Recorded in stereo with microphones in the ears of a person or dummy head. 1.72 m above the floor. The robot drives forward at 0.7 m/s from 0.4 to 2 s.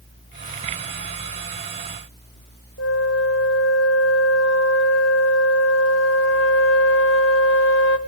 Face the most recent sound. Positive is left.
turn(degrees=80)